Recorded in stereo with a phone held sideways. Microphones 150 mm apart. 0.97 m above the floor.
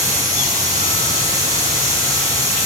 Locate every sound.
0.0 s a machine running: 20° right (ahead or behind), 0.8 m